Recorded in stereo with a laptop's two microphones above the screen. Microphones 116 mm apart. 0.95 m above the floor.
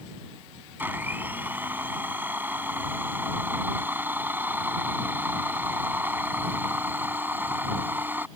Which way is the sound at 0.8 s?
15° right (ahead or behind).